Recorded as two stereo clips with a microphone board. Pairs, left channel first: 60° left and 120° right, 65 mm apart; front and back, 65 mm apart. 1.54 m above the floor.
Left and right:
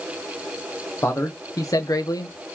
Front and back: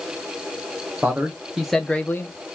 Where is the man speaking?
115° left, 1.0 m; by 2.6 s 30° left, 0.7 m.